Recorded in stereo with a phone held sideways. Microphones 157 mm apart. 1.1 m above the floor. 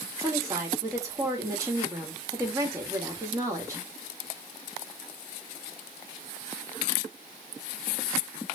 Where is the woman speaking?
20° right (ahead or behind), 1.7 m.